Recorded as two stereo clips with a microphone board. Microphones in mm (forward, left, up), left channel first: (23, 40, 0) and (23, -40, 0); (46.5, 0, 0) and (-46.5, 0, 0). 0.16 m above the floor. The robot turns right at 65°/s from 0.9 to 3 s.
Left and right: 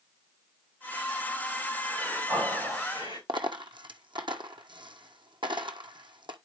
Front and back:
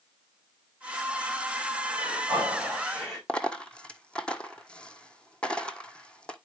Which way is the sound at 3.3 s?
80° right.